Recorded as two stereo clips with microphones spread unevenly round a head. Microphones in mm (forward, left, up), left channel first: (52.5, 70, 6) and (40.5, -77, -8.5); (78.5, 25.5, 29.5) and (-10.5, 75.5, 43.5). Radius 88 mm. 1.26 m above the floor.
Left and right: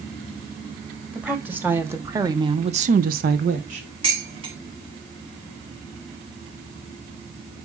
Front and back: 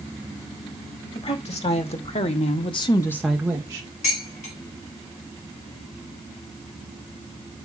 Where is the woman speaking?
15° right, 3 m; by 3.9 s 150° right, 1.4 m.